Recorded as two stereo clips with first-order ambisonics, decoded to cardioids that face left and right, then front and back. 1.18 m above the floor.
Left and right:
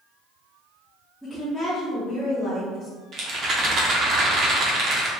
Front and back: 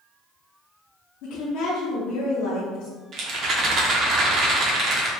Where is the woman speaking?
Straight ahead, 0.8 m.